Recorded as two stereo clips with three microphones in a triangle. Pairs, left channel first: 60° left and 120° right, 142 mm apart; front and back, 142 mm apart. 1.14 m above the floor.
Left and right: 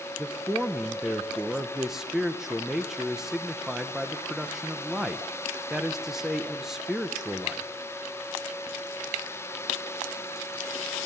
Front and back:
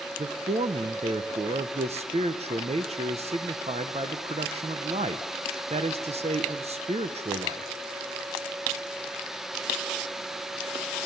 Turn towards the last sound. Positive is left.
turn(degrees=155)